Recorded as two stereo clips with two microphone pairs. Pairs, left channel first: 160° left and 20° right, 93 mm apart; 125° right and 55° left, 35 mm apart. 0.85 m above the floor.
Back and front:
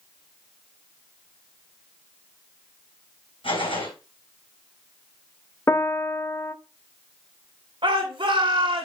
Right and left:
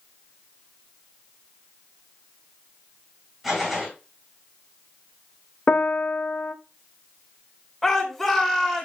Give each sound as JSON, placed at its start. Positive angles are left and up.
{"t": 3.4, "sound": "a gunshot", "azimuth_deg": 145, "distance_m": 5.0}
{"t": 5.7, "sound": "a piano", "azimuth_deg": -145, "distance_m": 0.6}
{"t": 7.8, "sound": "a shout", "azimuth_deg": -35, "distance_m": 2.5}